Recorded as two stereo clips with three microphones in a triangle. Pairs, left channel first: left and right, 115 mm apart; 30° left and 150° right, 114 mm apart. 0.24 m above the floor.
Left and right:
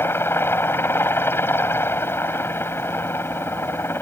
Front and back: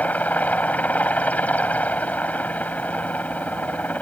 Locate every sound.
0.0 s a helicopter: 80° left